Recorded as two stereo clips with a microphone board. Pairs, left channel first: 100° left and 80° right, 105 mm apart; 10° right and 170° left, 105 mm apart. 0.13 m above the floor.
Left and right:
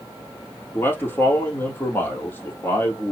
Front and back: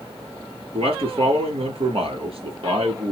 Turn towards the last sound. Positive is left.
turn(degrees=165)